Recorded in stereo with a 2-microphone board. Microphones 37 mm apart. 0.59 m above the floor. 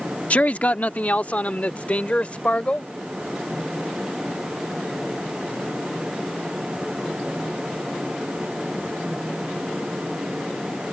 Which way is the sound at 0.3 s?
40° left (ahead or behind).